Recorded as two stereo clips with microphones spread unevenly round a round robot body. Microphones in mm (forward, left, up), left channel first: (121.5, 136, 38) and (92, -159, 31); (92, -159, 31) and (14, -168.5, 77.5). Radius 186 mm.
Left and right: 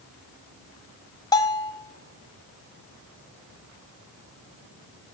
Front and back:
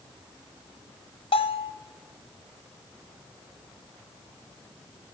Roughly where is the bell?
Ahead.